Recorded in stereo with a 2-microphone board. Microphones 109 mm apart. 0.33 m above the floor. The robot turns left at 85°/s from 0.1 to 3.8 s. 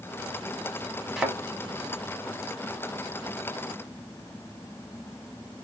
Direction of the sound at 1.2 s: Centre (ahead or behind).